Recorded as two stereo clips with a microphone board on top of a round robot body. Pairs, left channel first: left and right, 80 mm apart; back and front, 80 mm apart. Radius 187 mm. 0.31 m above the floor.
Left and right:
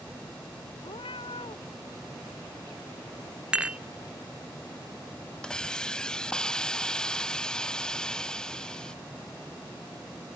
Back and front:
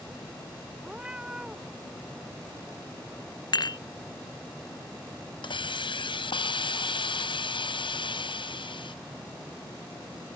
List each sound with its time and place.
0.8 s a cat meowing: 80° left
3.5 s dishes clattering: 165° right
5.4 s a hiss: 170° left